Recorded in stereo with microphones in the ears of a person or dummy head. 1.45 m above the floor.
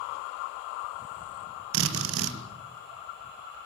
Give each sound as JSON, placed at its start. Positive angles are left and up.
{"t": 1.7, "sound": "a drill", "side_deg": -80, "distance_m": 2.0}